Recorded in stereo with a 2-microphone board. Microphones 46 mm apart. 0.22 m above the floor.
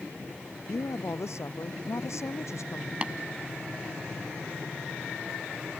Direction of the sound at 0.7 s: 75° left (ahead or behind).